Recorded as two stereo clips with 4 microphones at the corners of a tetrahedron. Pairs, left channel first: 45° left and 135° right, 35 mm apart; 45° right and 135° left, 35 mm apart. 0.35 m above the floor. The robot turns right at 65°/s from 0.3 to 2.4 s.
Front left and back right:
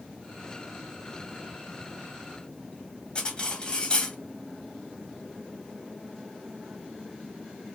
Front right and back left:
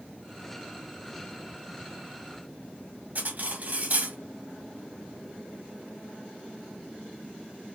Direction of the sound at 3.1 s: 105° left.